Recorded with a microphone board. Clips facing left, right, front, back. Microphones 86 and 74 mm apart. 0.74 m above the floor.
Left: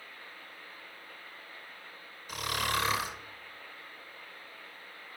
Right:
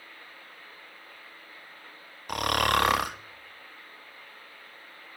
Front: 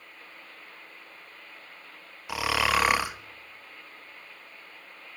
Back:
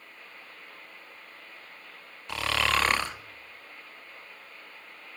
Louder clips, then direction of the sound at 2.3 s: Right 8 dB, front 2 dB; 80° right.